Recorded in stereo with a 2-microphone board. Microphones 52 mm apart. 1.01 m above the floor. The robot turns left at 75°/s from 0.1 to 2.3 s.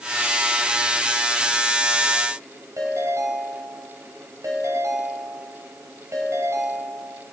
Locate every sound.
2.8 s a ringtone: 80° right, 3 m